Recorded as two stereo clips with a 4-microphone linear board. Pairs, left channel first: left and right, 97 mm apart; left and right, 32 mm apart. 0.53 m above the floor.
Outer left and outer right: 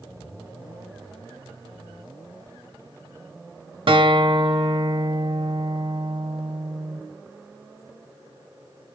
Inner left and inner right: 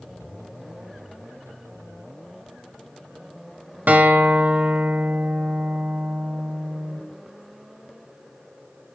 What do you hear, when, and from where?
3.9 s a guitar: 65° right (ahead or behind), 1.0 m